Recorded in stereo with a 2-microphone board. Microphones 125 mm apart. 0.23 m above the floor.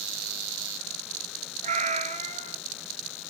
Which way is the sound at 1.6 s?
75° right (ahead or behind).